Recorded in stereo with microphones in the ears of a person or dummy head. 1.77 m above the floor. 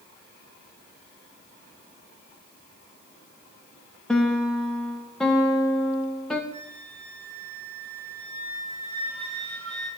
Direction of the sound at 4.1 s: Centre (ahead or behind).